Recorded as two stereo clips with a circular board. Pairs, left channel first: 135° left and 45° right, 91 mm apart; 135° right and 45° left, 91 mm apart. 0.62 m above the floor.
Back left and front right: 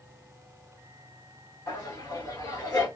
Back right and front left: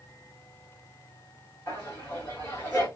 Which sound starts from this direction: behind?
Laughter, at 1.7 s.